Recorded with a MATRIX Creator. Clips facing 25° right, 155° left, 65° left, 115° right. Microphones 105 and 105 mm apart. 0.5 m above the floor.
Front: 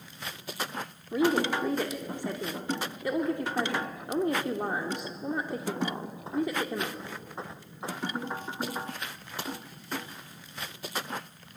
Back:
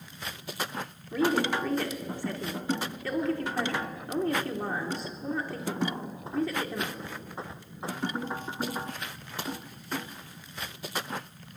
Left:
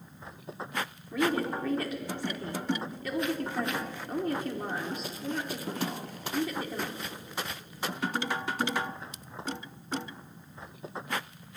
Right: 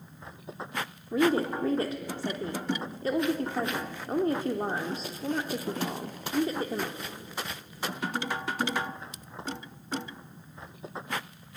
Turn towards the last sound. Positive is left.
turn(degrees=-85)